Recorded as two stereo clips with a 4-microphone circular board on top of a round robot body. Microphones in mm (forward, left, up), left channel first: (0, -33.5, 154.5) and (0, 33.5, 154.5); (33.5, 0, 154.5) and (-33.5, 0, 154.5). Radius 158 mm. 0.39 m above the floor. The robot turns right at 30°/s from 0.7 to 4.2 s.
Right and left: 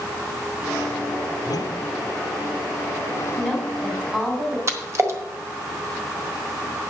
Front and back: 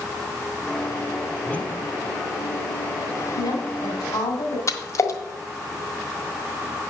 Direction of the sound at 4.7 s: 45° left.